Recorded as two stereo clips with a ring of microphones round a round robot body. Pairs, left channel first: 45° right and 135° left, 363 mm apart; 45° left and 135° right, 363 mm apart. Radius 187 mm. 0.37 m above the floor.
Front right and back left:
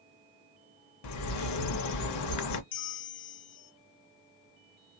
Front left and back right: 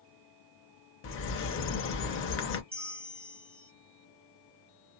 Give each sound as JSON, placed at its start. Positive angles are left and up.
{"t": 1.0, "sound": "a bird", "azimuth_deg": -10, "distance_m": 0.6}
{"t": 2.7, "sound": "a bell", "azimuth_deg": -55, "distance_m": 0.6}